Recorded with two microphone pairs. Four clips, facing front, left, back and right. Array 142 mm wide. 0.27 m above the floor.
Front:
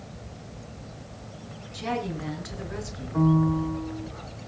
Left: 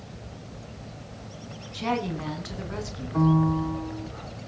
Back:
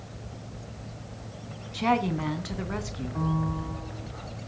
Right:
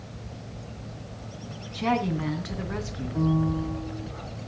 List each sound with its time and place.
1.7 s a woman speaking: straight behind, 3 m
3.1 s a piano: 55° left, 2.5 m